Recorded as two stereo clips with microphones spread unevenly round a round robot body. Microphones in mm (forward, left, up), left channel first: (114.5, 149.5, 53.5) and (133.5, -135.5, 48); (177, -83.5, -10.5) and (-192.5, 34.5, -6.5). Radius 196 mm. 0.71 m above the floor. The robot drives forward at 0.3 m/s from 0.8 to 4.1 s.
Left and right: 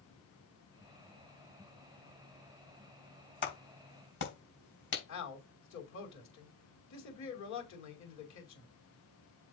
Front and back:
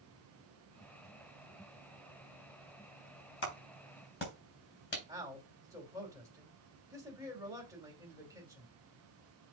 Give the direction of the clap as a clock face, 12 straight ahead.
11 o'clock.